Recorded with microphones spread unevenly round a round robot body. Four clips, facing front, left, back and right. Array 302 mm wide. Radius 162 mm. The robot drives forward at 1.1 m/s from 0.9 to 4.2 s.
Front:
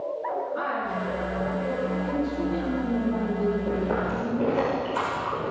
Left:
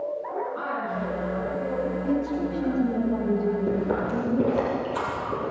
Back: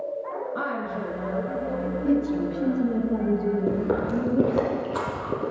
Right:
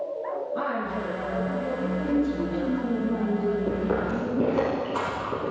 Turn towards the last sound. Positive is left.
turn(degrees=180)